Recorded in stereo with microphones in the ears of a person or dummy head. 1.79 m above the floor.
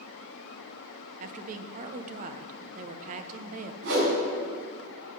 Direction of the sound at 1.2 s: 40° right (ahead or behind).